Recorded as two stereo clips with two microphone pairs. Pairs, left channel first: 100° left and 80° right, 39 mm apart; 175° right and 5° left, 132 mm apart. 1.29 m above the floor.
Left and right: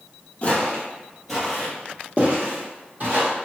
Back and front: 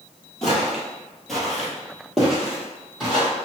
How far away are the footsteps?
About 1.4 m.